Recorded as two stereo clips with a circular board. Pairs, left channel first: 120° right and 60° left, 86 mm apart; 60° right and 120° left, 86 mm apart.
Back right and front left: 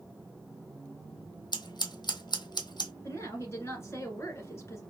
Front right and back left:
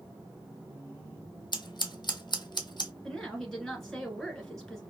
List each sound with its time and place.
1.5 s scissors: 90° right, 0.7 m
3.0 s a woman speaking: 140° right, 1.6 m